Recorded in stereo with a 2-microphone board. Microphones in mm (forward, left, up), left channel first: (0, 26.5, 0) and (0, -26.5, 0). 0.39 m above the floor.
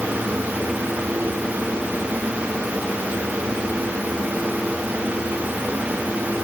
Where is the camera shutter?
No camera shutter in this recording.